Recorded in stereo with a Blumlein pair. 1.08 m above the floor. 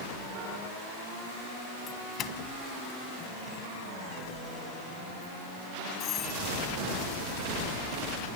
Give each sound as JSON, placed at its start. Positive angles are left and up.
{"t": 1.9, "sound": "a doorbell", "azimuth_deg": 30}